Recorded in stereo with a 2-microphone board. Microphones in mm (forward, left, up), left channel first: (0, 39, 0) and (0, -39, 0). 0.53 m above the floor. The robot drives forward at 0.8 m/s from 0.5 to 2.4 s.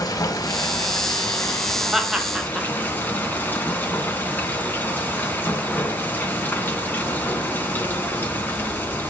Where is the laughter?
5° right (ahead or behind), 2.5 m.